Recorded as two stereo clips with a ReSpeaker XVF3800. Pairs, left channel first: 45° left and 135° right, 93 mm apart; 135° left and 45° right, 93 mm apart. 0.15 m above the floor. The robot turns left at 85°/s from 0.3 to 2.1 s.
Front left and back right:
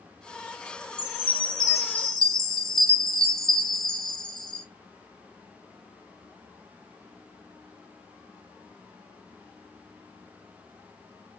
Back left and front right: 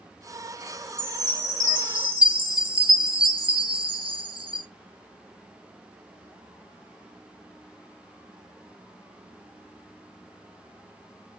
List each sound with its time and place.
1.0 s a chime: 60° left, 1.1 m; by 4.7 s 35° right, 1.1 m